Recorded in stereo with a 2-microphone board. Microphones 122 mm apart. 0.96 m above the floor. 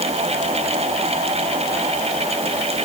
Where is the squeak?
I don't hear a squeak.